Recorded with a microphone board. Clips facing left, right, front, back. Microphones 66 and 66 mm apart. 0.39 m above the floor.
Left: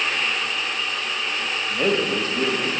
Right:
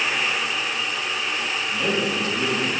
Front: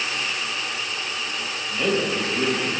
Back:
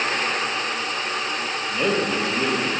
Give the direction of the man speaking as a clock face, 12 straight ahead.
8 o'clock.